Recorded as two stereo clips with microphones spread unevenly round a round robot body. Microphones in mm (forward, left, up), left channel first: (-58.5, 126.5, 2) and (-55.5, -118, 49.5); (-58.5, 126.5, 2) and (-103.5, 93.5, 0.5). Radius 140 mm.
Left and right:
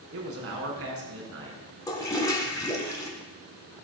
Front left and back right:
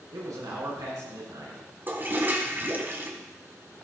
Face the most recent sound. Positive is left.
turn(degrees=165)